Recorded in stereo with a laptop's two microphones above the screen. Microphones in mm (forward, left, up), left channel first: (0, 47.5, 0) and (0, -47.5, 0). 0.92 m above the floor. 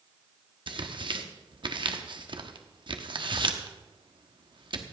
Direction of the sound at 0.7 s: 55° right (ahead or behind).